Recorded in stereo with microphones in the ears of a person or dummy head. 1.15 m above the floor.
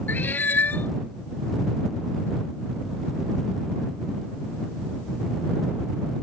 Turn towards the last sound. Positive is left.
turn(degrees=15)  # may be behind; listen again after turning